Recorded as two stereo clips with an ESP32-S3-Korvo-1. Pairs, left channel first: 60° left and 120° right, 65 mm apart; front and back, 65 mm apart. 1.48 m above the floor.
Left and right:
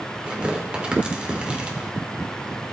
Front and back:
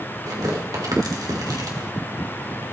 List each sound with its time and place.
0.3 s tearing paper: 165° left, 3 m